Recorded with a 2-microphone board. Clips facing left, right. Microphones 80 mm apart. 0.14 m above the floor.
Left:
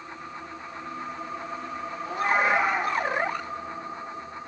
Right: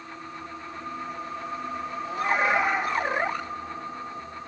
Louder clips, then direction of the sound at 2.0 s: Left 1 dB; 45° left (ahead or behind).